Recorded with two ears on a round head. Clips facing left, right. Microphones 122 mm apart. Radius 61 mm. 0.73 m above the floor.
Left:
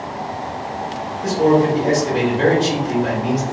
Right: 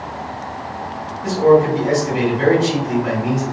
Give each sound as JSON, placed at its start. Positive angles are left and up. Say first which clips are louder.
{"t": 1.2, "sound": "a man speaking", "louder": "right 2 dB", "side_deg": 45, "distance_m": 1.3}